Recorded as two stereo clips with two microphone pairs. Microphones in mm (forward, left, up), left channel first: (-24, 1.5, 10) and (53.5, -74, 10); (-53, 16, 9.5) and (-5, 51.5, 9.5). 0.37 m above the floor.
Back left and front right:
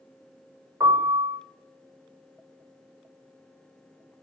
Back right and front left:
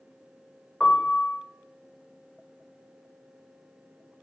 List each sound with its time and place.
0.8 s a piano: 70° right, 0.9 m